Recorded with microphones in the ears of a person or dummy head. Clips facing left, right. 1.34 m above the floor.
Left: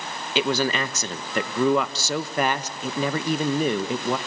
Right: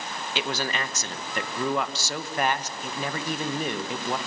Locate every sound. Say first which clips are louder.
0.3 s a man speaking: left 7 dB; 70° left (ahead or behind), 1.3 m